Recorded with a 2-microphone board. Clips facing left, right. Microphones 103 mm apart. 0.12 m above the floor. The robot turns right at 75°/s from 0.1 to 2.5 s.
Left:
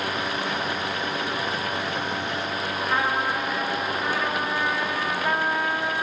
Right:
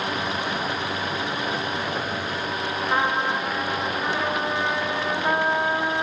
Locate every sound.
2.9 s a trumpet: 15° right (ahead or behind), 9.5 m